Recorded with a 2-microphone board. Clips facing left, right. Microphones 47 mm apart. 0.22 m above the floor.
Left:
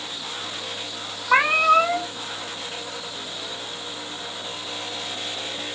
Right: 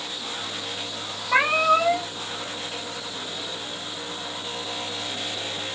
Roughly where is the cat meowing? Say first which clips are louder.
Left 2 dB; left.